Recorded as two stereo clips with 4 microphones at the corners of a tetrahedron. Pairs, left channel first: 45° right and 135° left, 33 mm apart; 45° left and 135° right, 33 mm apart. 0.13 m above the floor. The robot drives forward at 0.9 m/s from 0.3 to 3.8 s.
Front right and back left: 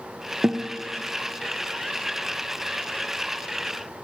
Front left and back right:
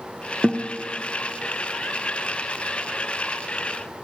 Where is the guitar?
165° left, 2 m.